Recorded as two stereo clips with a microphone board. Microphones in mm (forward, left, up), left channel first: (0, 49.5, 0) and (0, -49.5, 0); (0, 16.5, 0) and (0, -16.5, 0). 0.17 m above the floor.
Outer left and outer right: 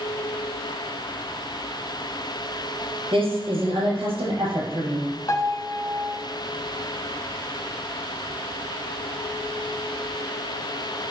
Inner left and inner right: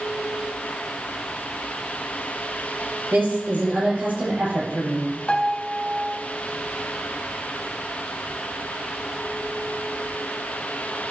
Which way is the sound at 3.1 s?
70° right (ahead or behind).